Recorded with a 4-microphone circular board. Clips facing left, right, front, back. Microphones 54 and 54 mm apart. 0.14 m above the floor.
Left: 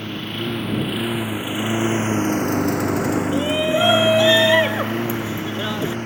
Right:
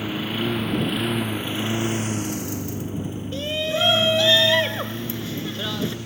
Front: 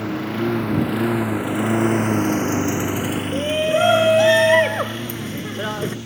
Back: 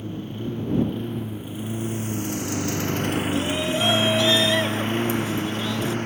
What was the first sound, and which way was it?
A lawn mower, 5° right.